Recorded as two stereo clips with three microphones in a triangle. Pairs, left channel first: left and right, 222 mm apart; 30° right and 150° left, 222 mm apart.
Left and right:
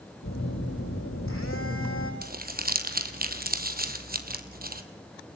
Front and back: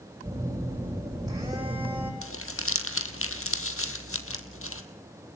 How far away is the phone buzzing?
About 7.5 m.